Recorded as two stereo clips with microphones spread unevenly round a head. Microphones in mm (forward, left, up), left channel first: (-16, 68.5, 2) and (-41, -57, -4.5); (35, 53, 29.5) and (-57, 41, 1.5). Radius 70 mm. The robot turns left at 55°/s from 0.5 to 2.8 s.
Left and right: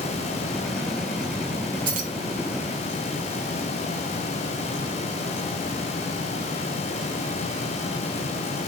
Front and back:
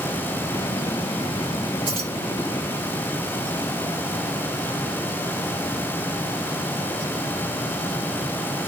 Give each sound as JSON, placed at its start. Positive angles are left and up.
{"t": 1.9, "sound": "keys jangling", "azimuth_deg": -105, "distance_m": 1.0}